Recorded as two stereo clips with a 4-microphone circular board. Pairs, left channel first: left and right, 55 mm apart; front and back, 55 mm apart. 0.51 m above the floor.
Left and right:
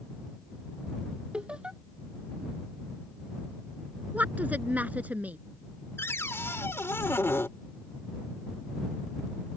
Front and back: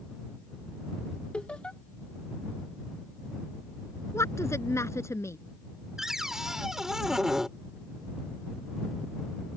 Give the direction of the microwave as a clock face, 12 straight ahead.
I don't hear a microwave.